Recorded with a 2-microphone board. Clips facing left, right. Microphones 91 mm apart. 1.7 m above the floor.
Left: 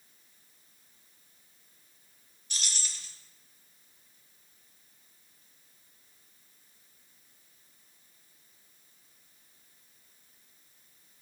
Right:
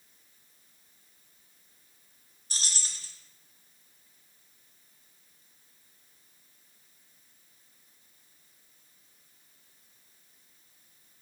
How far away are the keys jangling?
About 0.8 m.